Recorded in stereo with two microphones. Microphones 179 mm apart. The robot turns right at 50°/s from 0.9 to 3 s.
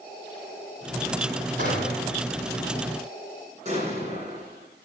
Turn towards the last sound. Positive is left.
turn(degrees=-40)  # may be behind; listen again after turning